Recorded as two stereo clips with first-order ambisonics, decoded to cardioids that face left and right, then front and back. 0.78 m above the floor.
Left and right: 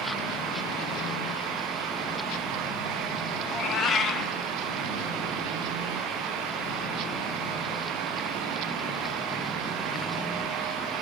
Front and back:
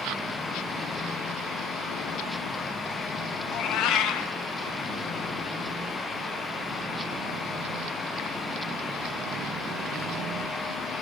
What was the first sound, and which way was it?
A cat meowing, 35° left.